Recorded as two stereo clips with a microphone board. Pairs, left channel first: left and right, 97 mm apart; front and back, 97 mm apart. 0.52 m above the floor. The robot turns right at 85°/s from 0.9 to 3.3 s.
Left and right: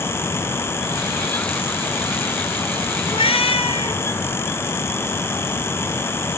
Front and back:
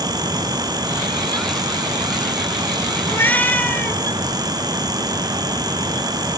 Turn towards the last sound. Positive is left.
turn(degrees=75)